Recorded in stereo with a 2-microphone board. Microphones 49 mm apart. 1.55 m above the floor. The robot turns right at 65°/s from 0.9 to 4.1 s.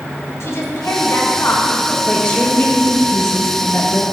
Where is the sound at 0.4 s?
70° left, 1.7 m; by 2.0 s 140° left, 1.7 m.